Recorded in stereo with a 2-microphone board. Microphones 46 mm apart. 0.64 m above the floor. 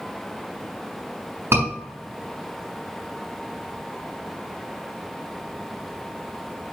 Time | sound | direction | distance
1.5 | a scream | 80° right | 4 m